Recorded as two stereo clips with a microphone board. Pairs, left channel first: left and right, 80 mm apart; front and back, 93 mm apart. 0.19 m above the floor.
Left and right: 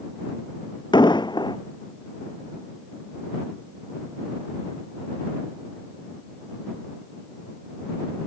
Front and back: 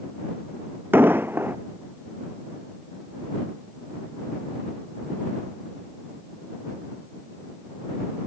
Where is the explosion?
115° left.